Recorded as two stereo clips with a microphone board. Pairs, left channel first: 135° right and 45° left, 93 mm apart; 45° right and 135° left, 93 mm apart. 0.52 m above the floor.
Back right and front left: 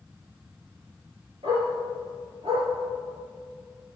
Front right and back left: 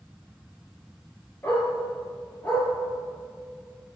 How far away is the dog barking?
About 5.5 m.